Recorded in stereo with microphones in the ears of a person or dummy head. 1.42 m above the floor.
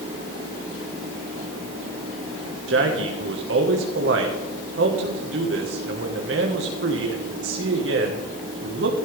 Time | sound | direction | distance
2.7 | a man speaking | 65° right (ahead or behind) | 1.6 m